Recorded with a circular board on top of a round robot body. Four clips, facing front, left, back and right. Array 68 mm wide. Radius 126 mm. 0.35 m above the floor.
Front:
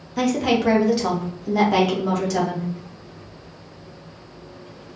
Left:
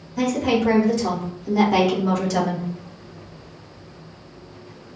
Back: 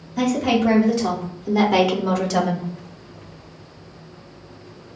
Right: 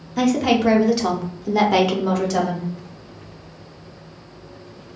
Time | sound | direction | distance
0.2 | a woman speaking | 55° right | 1.3 m